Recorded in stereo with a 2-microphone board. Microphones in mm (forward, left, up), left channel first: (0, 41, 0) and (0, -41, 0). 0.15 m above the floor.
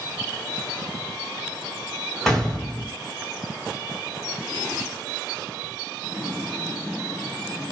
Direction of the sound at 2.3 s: 5° left (ahead or behind).